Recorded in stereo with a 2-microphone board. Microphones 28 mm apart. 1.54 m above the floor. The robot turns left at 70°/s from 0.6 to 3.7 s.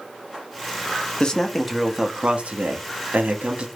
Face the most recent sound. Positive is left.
turn(degrees=-140)